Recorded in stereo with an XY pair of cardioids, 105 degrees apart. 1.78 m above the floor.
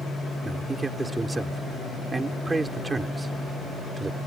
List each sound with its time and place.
0.4 s a man speaking: 20° right